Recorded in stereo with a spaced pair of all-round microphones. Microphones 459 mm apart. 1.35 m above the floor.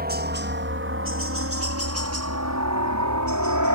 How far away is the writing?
I don't hear writing.